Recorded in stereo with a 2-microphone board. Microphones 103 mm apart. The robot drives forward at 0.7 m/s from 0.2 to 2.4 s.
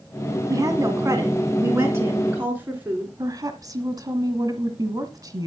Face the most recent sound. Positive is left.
turn(degrees=-35)  # may be behind; listen again after turning